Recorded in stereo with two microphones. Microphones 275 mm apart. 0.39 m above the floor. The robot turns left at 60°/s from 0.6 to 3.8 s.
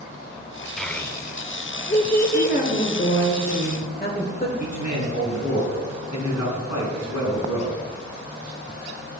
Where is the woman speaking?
140° left, 1.3 m; by 4.5 s 50° left, 1.3 m.